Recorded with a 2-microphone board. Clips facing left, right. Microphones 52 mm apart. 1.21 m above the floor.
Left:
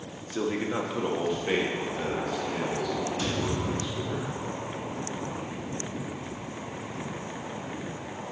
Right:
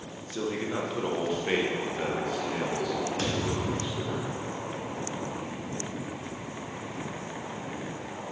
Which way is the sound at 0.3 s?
30° left (ahead or behind).